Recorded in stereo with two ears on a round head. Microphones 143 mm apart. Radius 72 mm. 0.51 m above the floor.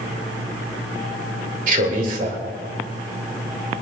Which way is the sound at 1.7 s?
50° right (ahead or behind).